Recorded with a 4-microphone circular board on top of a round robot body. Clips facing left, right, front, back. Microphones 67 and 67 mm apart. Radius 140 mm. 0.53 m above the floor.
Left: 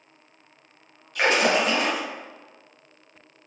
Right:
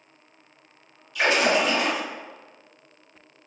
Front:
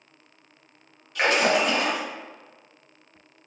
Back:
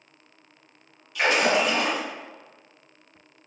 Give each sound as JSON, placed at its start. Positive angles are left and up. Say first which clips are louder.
{"t": 1.1, "sound": "a splash", "louder": "even, even", "azimuth_deg": 50, "distance_m": 1.9}